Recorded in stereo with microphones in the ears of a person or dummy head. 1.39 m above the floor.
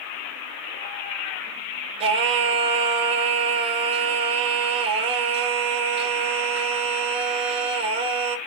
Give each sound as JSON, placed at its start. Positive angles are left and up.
{"t": 2.0, "sound": "singing", "side_deg": -30, "distance_m": 2.5}